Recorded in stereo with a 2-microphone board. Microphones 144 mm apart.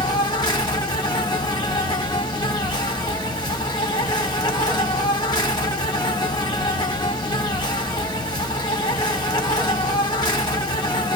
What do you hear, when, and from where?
0.0 s an insect: 30° left (ahead or behind), 1.0 m